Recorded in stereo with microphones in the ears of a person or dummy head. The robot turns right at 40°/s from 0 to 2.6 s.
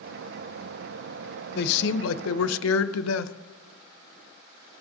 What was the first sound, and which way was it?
A man speaking, 60° left.